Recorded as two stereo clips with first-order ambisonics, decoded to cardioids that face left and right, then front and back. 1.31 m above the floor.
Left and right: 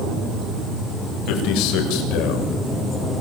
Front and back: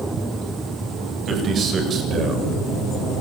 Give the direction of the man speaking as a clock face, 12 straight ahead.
8 o'clock.